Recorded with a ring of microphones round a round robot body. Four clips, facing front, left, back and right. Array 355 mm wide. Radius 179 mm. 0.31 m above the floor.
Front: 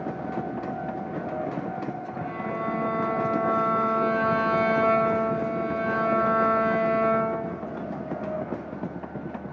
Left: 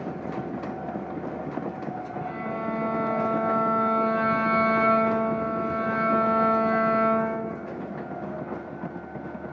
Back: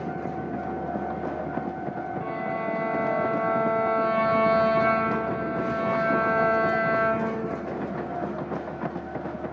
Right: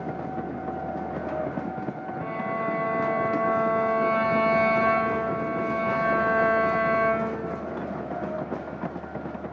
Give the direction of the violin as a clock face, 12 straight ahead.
4 o'clock.